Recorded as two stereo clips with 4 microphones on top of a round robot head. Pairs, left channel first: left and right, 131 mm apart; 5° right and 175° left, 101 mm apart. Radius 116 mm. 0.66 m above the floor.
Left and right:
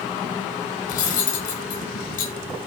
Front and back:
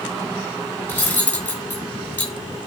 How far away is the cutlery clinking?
About 6 m.